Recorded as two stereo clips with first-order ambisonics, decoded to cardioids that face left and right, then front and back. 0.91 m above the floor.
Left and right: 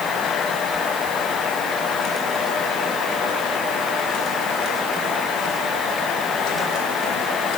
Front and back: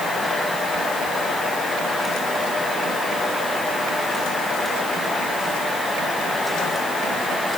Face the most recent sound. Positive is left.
No sound to turn to.